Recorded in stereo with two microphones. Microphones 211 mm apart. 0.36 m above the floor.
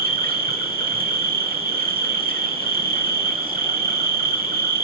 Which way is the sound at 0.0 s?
45° right (ahead or behind).